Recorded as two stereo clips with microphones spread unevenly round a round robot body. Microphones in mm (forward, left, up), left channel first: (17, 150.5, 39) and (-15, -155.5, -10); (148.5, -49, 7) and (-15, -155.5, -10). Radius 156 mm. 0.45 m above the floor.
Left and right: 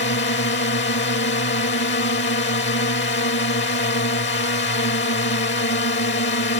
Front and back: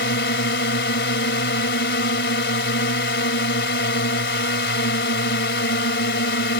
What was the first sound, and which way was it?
A drone, 25° left.